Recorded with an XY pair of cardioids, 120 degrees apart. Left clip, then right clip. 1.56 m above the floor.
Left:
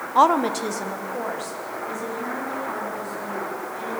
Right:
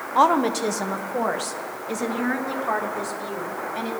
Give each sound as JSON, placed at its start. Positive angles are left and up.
{"t": 0.1, "sound": "a woman speaking", "azimuth_deg": 10, "distance_m": 0.9}